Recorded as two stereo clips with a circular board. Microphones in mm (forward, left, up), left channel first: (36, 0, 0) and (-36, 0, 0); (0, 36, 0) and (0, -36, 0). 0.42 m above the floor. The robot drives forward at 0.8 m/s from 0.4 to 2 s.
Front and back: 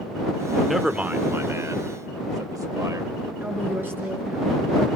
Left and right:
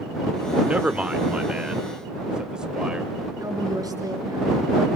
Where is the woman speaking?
120° right, 5.5 m.